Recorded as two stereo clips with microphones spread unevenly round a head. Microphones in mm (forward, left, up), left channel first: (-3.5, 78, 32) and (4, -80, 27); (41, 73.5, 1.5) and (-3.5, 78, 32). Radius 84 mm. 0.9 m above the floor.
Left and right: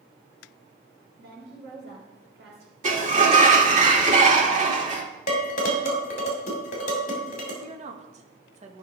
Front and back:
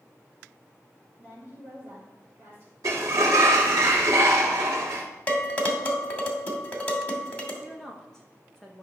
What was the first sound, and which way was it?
A woman speaking, 70° right.